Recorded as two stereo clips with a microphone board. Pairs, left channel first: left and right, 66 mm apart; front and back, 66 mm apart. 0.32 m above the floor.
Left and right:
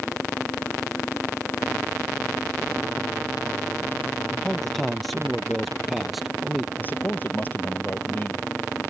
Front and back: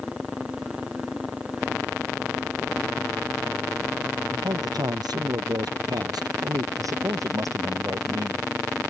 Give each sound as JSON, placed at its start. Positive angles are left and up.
{"t": 4.3, "sound": "a man speaking", "azimuth_deg": 175}
{"t": 6.8, "sound": "a man speaking", "azimuth_deg": 150}